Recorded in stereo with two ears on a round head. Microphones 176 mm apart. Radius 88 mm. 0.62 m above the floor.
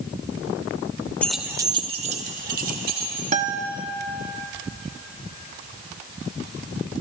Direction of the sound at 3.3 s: 40° right (ahead or behind).